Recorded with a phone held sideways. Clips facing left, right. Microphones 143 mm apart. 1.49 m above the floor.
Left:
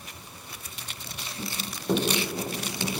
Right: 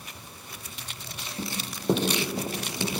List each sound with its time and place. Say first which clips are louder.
1.4 s running footsteps: right 2 dB; 25° right (ahead or behind), 6 m; by 3.0 s 20° right (ahead or behind), 8 m